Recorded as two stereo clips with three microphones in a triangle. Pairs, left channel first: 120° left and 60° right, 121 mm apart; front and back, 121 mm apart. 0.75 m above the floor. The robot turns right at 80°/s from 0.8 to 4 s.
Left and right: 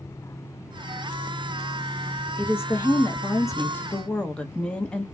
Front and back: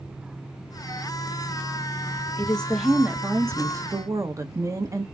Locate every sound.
2.4 s a woman speaking: 60° left, 0.8 m; by 5.0 s 170° right, 0.8 m